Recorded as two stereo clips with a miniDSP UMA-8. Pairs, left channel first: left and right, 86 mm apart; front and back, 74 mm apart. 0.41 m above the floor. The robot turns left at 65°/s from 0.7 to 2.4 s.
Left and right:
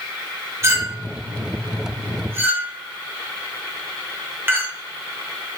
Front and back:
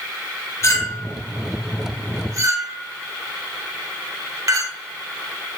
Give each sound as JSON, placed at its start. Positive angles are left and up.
{"t": 0.6, "sound": "a clink", "azimuth_deg": -40, "distance_m": 0.6}